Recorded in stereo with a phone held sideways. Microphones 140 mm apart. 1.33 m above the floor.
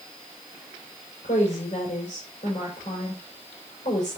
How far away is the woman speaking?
About 6 m.